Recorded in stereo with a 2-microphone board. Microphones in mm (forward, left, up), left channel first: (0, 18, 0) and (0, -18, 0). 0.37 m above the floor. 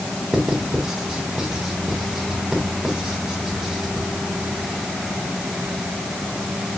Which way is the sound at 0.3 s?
15° right (ahead or behind).